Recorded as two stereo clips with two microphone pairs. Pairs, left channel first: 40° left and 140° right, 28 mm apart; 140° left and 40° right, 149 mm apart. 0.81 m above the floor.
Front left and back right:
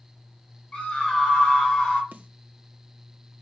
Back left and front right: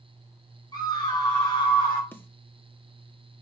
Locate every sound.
0.7 s a scream: 80° left, 3.5 m; by 2.0 s 85° left, 3 m
2.1 s a snare drum: 145° right, 0.9 m